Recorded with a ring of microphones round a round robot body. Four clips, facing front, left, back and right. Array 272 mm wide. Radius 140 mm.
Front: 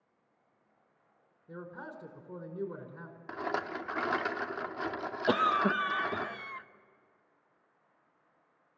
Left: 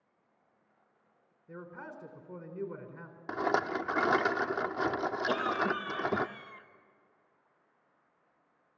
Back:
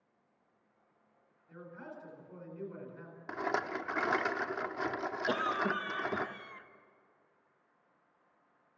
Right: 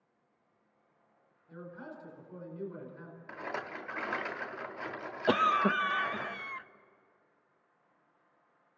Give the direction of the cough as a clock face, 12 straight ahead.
2 o'clock.